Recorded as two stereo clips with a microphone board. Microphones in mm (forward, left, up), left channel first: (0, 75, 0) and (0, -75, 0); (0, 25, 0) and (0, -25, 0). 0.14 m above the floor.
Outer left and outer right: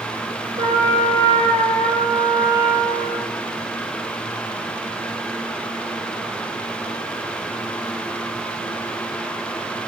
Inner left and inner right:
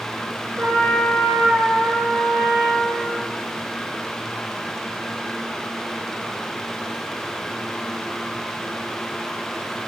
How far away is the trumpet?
About 5 m.